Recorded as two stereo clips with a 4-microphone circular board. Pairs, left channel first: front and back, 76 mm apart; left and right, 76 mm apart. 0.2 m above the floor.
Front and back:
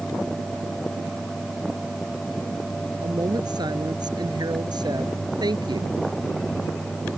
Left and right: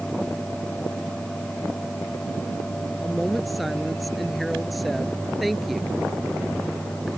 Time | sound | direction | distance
3.0 | a woman speaking | straight behind | ?